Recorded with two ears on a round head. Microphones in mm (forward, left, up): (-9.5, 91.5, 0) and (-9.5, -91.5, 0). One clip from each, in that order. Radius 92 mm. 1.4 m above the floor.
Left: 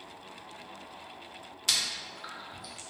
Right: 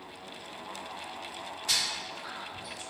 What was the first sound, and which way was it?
Chewing, 40° left (ahead or behind).